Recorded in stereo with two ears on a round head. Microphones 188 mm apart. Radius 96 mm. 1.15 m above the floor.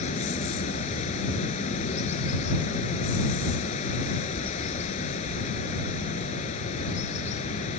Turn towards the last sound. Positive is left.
turn(degrees=30)  # may be behind; listen again after turning